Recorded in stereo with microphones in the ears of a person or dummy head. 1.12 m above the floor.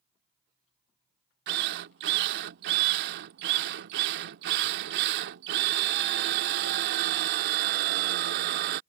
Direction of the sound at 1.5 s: 55° right (ahead or behind).